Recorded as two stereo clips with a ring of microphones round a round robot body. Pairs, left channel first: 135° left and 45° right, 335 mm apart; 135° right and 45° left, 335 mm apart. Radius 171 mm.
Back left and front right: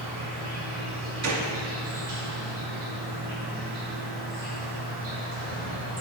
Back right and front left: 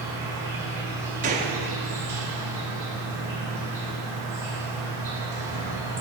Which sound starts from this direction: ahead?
A gunshot, at 1.2 s.